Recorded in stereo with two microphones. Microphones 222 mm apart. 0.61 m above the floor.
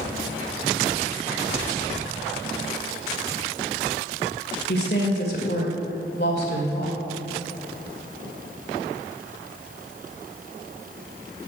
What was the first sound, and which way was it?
A woman speaking, 45° left (ahead or behind).